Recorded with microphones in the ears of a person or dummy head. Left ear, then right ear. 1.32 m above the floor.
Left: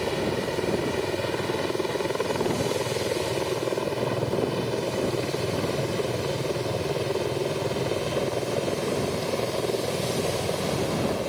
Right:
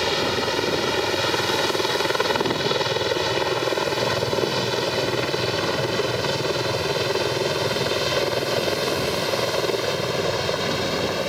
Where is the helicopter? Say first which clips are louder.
Right 5 dB; 55° right (ahead or behind); by 11.3 s 65° right (ahead or behind).